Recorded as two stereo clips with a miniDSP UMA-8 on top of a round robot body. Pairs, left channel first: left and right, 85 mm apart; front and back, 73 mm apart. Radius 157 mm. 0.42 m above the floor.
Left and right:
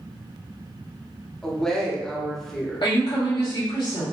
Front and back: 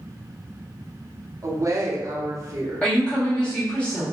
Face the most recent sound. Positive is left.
turn(degrees=75)